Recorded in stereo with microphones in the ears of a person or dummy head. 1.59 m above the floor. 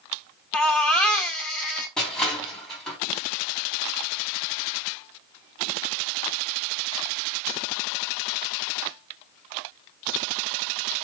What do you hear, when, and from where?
0.5 s a baby crying: 5° left (ahead or behind), 1.7 m
2.0 s crushing: centre (ahead or behind), 3 m